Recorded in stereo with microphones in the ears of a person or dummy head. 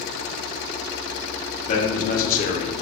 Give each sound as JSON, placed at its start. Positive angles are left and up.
{"t": 1.7, "sound": "a man speaking", "side_deg": 55, "distance_m": 1.6}